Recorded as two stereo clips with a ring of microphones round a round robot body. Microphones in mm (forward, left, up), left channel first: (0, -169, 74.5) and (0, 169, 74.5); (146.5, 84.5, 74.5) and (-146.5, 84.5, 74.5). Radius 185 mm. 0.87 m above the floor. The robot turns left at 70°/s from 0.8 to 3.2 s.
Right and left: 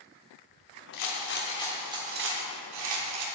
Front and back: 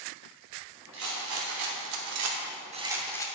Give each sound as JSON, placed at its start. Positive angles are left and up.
{"t": 0.9, "sound": "a rattle", "azimuth_deg": -120, "distance_m": 0.9}